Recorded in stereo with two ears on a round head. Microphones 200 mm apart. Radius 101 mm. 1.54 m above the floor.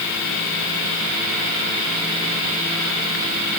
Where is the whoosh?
No whoosh in this recording.